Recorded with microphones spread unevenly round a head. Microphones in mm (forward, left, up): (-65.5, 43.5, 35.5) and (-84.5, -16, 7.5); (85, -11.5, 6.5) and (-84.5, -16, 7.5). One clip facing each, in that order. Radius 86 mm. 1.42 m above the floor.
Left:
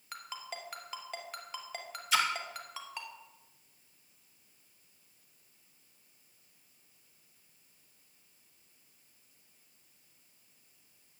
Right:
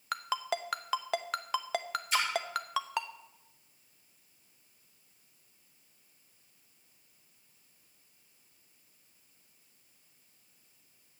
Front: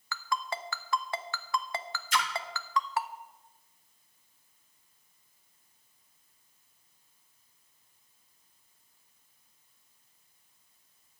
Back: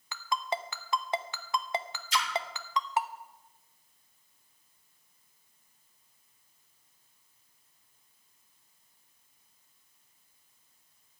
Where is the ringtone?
115° right, 0.8 m.